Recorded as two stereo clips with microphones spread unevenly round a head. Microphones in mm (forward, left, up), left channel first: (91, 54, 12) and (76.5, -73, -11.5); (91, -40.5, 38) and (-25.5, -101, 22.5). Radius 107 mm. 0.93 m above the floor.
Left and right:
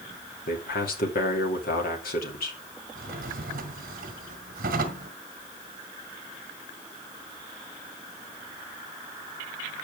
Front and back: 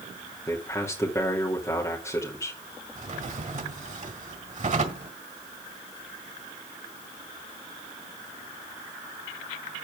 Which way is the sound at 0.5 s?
105° left.